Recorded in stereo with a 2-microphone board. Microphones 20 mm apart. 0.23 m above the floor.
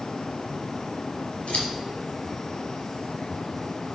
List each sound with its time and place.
1.5 s scissors: 70° left (ahead or behind), 4 m